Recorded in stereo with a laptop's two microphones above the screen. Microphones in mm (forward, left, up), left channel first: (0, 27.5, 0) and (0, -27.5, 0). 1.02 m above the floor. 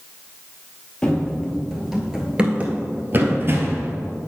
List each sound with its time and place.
1.0 s running footsteps: 15° left (ahead or behind), 1.3 m; by 3.9 s 50° right (ahead or behind), 1.4 m